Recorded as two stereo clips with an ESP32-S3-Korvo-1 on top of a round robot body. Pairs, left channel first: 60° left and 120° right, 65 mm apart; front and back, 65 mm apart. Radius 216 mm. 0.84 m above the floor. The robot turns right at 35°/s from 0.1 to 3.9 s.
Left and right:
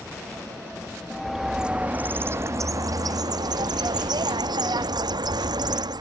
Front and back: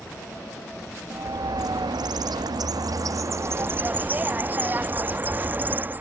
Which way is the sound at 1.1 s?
145° left.